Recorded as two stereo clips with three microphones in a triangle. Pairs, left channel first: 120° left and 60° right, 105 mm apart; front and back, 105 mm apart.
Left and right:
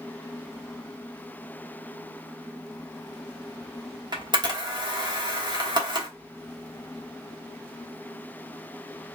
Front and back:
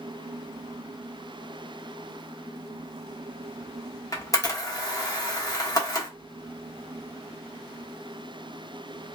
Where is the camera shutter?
45° right, 1.0 m.